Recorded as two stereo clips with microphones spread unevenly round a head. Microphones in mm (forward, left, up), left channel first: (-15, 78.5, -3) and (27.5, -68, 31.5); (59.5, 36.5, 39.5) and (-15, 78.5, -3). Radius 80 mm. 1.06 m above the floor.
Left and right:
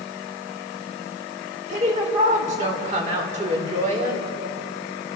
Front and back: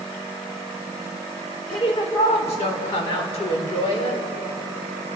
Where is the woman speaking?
25° right, 4 m.